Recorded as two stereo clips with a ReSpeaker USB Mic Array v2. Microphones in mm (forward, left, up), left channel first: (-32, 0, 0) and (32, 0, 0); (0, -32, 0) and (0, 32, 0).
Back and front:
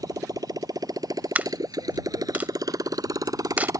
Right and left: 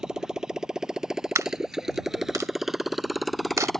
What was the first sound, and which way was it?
A motorcycle, 10° left.